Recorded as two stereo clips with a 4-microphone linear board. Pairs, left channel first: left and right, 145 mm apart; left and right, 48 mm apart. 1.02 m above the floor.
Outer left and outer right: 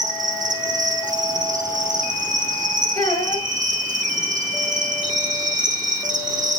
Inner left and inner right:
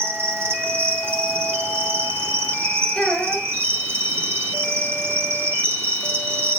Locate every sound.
0.0 s an insect: 60° right (ahead or behind), 1.0 m
3.0 s a child speaking: 20° left (ahead or behind), 5 m